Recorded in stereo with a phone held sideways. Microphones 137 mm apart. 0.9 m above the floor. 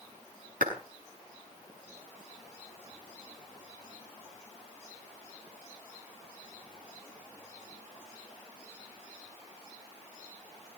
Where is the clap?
75° right (ahead or behind), 7 m.